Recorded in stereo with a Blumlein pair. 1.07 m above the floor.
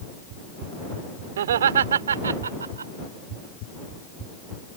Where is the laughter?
60° right; by 2.9 s 75° right.